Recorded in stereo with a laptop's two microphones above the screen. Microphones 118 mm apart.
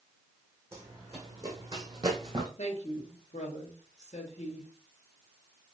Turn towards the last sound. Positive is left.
turn(degrees=75)  # may be behind; listen again after turning